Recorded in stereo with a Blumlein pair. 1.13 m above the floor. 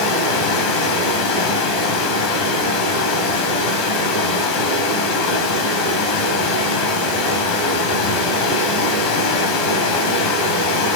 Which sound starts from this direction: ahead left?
Running water, at 0.0 s.